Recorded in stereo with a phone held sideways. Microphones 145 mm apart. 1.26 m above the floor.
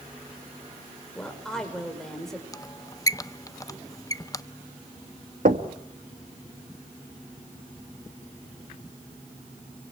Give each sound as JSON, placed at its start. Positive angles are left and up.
{"t": 1.1, "sound": "a woman speaking", "side_deg": 5, "distance_m": 5.0}
{"t": 2.5, "sound": "a squeak", "side_deg": 25, "distance_m": 0.6}
{"t": 5.5, "sound": "knocking", "side_deg": -75, "distance_m": 1.6}